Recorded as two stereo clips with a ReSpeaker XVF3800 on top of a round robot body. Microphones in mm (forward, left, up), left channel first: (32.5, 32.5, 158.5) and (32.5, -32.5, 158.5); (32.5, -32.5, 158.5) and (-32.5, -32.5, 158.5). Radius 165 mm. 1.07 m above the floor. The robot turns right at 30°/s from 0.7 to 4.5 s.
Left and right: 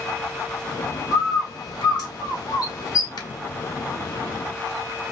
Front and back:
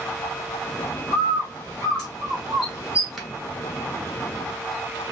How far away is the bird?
About 2 m.